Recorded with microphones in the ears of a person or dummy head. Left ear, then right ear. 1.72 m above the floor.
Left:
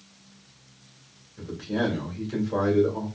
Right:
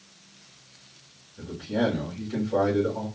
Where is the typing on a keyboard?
No typing on a keyboard in this recording.